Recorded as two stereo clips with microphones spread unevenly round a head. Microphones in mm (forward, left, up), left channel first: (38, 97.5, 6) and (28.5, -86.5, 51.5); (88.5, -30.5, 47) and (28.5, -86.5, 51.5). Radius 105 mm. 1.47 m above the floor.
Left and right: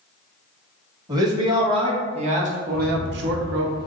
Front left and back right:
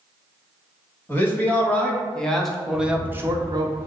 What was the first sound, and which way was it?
A man speaking, 25° right.